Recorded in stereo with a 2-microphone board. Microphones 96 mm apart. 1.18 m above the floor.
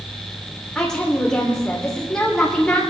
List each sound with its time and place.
0.8 s a woman speaking: 10° left (ahead or behind), 3.5 m